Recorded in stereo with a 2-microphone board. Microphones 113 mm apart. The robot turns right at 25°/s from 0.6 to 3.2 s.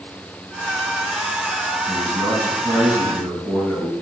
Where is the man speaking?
45° right, 4.5 m; by 3.9 s 15° right, 4.5 m.